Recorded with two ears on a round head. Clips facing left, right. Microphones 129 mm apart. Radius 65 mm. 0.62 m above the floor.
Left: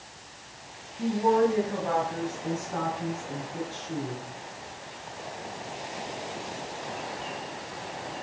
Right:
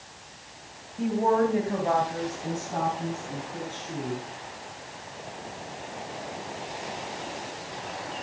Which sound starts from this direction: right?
A woman speaking, at 1.0 s.